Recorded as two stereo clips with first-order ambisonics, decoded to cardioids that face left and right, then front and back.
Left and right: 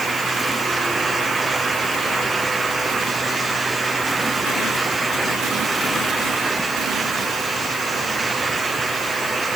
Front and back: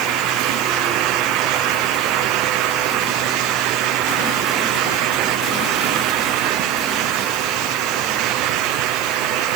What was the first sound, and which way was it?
Only background noise.